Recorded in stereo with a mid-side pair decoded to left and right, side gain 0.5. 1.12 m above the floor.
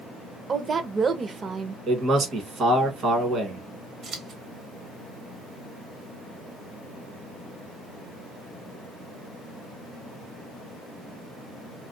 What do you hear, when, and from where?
0.5 s a woman speaking: 35° right, 0.7 m
1.9 s a man speaking: 55° right, 1.3 m
4.0 s scissors: 55° right, 1.0 m